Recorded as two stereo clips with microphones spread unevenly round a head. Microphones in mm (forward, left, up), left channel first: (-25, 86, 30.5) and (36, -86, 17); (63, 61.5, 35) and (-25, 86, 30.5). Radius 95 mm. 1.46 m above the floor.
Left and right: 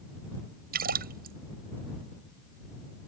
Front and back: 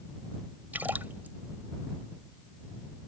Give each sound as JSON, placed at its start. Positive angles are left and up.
{"t": 0.7, "sound": "a splash", "azimuth_deg": -115}